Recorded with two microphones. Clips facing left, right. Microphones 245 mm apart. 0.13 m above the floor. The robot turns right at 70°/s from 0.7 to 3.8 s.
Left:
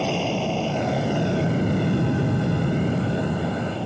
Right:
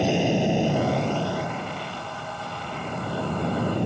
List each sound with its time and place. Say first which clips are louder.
0.0 s an aircraft: right 3 dB; 15° right; by 3.9 s 160° right